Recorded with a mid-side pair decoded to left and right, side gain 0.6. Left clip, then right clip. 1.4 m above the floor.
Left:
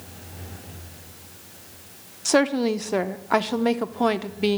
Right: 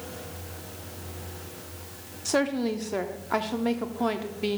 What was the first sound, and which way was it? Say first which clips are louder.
A woman speaking: left 6 dB; 35° left.